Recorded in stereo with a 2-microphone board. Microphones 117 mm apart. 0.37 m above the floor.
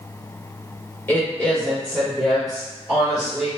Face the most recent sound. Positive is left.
turn(degrees=-5)  # may be behind; listen again after turning